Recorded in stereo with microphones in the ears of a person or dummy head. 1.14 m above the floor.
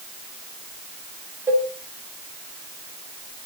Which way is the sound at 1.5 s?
10° right (ahead or behind).